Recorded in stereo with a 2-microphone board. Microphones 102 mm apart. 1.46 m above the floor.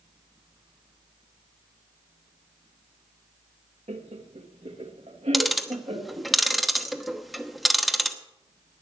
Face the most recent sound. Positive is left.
turn(degrees=0)  # may be behind; listen again after turning